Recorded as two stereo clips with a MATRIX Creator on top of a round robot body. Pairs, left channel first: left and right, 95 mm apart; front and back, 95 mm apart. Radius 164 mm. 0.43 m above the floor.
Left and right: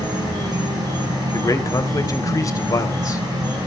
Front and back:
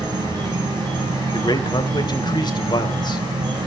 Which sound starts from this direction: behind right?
An insect, at 0.0 s.